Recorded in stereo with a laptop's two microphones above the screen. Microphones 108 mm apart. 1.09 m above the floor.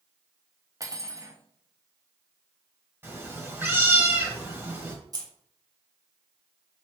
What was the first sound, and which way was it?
Cutlery clinking, 30° right (ahead or behind).